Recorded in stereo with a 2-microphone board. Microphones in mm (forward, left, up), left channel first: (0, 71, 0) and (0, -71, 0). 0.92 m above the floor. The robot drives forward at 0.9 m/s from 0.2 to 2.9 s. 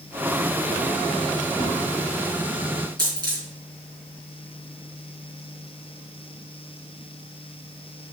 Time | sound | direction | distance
1.6 | a whoosh | 45° right (ahead or behind) | 2 m
3.0 | a dropped coin | 30° right (ahead or behind) | 4.5 m